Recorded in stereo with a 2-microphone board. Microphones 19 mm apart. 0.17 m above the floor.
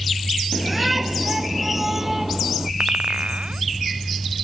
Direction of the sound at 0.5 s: 5° right (ahead or behind).